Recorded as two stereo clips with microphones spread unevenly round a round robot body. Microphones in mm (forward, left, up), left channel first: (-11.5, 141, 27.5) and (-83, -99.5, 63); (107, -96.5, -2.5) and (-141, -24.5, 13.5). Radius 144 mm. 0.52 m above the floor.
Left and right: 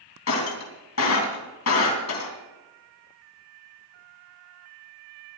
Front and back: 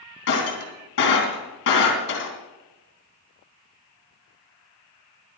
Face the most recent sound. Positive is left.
turn(degrees=35)